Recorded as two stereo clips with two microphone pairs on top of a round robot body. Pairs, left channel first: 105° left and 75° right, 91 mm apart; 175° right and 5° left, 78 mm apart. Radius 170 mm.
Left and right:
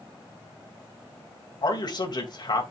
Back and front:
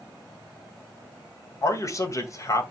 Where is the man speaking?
140° left, 2.5 m.